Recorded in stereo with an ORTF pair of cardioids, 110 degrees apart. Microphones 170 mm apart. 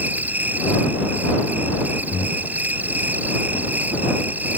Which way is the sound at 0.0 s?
10° right.